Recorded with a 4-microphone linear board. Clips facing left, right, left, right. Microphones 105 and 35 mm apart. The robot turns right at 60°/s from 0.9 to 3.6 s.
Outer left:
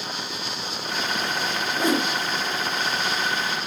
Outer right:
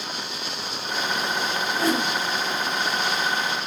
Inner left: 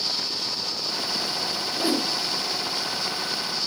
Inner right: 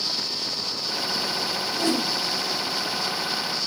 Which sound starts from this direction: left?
A whoosh, at 1.7 s.